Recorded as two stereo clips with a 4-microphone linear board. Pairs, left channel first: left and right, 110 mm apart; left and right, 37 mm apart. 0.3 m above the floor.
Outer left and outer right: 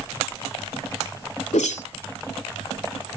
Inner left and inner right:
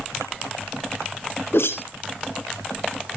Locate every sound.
1.5 s a whoosh: 80° left, 0.7 m